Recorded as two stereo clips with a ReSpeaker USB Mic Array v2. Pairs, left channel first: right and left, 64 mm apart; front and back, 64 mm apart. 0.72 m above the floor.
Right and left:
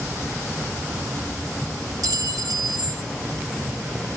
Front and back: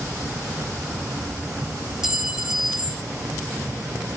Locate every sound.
2.0 s a clink: 100° left, 1.2 m